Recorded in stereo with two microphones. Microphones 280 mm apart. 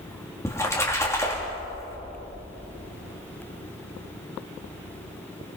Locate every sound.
0.5 s a splash: 10° left (ahead or behind), 3.5 m